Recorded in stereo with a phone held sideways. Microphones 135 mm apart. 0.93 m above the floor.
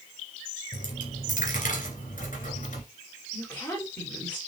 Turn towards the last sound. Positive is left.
turn(degrees=10)  # may be behind; listen again after turning